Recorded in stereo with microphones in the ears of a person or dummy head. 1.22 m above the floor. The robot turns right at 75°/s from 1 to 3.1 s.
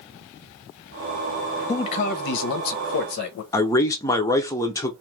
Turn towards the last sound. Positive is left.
turn(degrees=20)  # may be behind; listen again after turning